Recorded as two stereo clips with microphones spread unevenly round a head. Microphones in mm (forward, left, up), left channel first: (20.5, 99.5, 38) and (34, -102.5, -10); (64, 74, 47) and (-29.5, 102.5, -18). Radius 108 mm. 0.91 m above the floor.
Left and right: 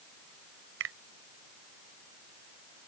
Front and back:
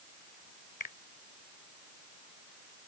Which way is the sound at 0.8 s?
55° right.